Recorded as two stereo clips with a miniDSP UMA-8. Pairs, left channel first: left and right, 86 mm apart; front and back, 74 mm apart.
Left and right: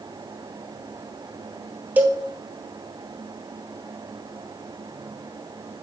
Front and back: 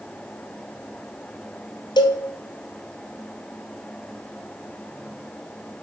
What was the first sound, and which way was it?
A cowbell, 20° right.